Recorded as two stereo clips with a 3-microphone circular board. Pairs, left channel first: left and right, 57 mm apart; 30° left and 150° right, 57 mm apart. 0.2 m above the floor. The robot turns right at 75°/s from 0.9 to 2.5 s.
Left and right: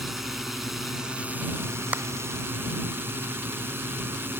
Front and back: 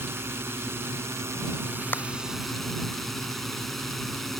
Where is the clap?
25° right; by 2.1 s 15° right.